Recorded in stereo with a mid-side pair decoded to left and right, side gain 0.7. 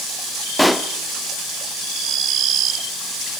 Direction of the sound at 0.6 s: Straight ahead.